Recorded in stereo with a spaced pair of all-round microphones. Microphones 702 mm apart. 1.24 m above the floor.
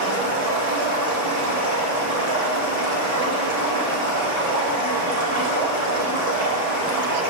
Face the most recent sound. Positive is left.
turn(degrees=-30)  # may be behind; listen again after turning